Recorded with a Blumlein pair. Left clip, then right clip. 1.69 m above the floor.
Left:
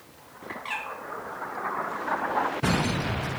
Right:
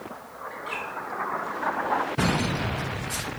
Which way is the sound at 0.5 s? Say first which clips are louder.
Left 1 dB; 45° left.